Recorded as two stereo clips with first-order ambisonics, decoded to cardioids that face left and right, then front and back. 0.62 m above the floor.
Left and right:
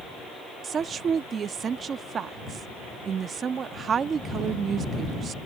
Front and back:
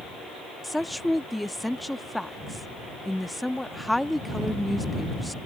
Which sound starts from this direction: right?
A woman speaking, at 0.6 s.